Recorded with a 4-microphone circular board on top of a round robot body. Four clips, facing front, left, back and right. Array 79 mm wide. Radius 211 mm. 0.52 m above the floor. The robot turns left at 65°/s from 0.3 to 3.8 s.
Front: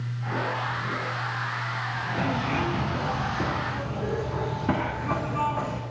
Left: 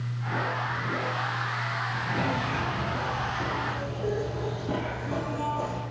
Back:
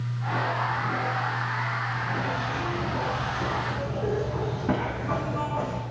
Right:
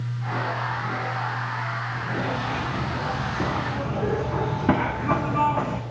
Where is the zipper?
25° left, 2.5 m; by 5.8 s 80° right, 2.5 m.